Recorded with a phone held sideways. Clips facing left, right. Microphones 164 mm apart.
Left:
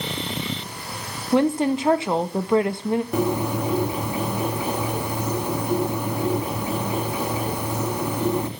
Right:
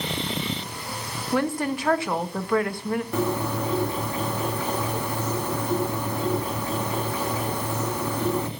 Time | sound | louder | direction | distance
1.3 | a woman speaking | left 6 dB | 20° left (ahead or behind) | 0.6 m
3.1 | a bird | left 3 dB | 15° left (ahead or behind) | 0.8 m